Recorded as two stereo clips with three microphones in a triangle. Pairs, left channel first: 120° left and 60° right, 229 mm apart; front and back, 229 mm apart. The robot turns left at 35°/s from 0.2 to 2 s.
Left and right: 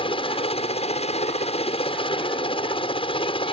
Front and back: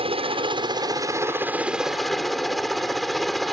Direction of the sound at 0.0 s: 150° left.